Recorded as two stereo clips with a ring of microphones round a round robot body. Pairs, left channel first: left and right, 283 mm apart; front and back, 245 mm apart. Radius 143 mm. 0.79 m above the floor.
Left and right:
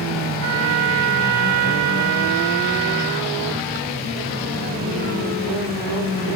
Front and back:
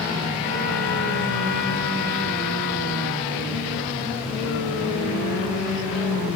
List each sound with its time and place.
0.4 s a trumpet: 70° right, 1.4 m